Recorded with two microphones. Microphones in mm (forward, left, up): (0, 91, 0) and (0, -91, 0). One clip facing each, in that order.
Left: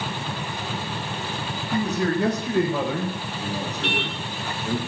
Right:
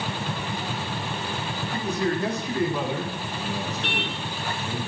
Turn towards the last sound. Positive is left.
turn(degrees=60)  # may be behind; listen again after turning